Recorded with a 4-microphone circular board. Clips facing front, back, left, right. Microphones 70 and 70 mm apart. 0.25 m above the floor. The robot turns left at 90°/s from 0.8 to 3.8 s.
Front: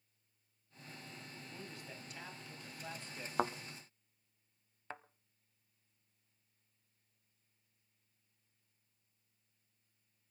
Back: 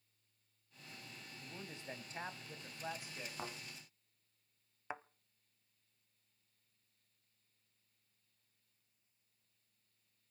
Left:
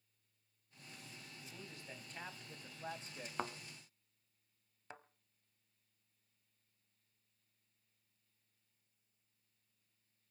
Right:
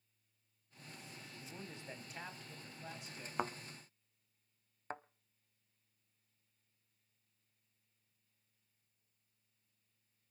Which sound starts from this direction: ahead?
A thud, at 3.4 s.